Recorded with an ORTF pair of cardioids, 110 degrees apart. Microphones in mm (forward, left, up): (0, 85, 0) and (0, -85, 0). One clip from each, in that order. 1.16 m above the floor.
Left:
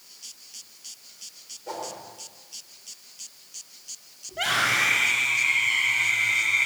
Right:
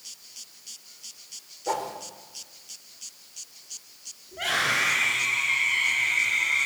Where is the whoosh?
45° right, 4.5 m.